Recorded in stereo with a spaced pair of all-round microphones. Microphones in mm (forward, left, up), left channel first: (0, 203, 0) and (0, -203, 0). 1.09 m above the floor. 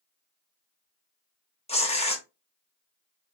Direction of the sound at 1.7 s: 15° left (ahead or behind).